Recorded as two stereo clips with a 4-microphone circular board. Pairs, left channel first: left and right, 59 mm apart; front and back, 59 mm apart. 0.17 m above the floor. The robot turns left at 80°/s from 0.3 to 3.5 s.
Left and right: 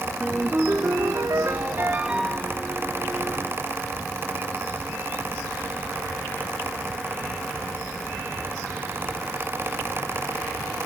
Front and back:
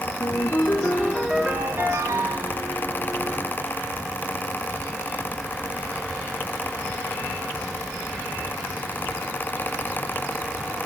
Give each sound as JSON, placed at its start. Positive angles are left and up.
{"t": 0.2, "sound": "a ringtone", "azimuth_deg": -20, "distance_m": 2.0}